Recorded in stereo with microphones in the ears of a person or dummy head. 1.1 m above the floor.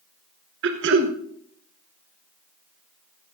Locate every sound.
0.6 s throat clearing: 60° right (ahead or behind), 1.3 m